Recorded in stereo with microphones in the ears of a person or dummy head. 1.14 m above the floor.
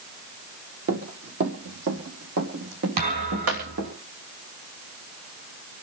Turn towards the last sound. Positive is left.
turn(degrees=-50)  # may be behind; listen again after turning